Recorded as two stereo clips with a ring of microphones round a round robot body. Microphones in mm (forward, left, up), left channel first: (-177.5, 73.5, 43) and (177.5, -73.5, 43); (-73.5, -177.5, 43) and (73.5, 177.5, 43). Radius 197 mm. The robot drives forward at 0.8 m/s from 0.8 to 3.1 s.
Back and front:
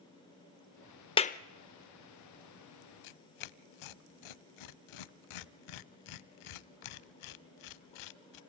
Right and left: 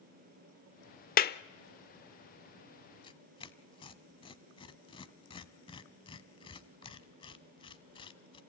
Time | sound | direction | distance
1.2 | a clap | 145° right | 0.6 m
3.0 | tearing paper | 170° left | 0.7 m